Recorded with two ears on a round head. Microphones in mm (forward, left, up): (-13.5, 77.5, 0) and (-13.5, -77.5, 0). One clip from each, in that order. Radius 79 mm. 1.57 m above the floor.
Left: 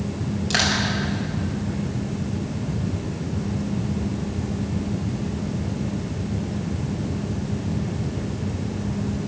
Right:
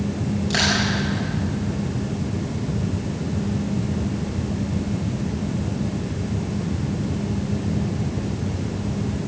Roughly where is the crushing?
Left.